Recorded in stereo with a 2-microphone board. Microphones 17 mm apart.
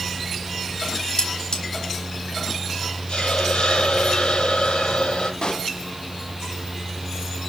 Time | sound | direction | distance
1.2 | cutlery clinking | 55° left (ahead or behind) | 4.5 m
3.1 | a hiss | 80° left | 8.5 m
5.4 | a pop | 55° left (ahead or behind) | 1.0 m